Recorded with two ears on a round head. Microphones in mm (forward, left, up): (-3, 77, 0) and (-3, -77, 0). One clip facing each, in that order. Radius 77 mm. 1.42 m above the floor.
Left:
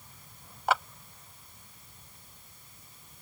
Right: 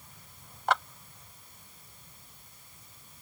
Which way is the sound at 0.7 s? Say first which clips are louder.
Left 1 dB; 5° left (ahead or behind).